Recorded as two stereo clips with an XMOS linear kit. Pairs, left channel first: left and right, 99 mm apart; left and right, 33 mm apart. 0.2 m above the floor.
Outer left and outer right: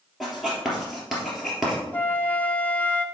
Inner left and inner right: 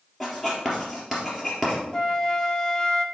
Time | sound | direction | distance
0.2 | writing | 5° right (ahead or behind) | 3 m
1.9 | a flute | 20° left (ahead or behind) | 0.6 m